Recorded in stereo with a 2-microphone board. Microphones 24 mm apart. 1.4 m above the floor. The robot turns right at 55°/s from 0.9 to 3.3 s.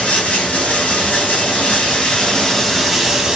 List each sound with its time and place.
0.0 s running water: 75° left, 1.5 m; by 3.4 s 155° right, 1.5 m